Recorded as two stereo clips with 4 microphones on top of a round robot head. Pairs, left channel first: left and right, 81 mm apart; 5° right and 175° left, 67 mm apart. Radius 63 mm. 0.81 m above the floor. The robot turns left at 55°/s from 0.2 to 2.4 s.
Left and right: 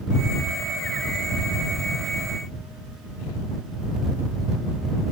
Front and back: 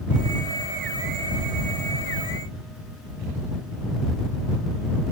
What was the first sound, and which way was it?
Only background noise.